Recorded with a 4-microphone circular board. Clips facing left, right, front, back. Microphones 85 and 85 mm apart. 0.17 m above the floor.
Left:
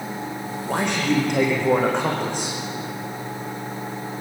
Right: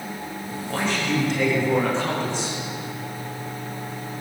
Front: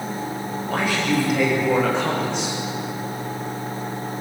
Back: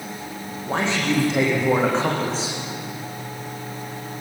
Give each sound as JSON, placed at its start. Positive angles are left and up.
{"t": 0.7, "sound": "a man speaking", "azimuth_deg": 115, "distance_m": 8.0}